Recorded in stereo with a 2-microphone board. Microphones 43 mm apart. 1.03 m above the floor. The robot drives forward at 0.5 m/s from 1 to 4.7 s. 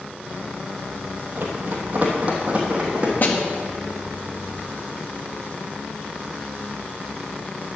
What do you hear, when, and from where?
1.4 s running footsteps: 50° right (ahead or behind), 2.5 m; by 3.1 s 25° right (ahead or behind), 3.5 m
3.2 s a snare drum: 50° left (ahead or behind), 1.5 m; by 3.4 s 45° left (ahead or behind), 1.5 m